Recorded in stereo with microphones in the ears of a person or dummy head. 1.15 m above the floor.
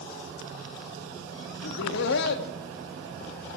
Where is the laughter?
70° left (ahead or behind), 1.5 m.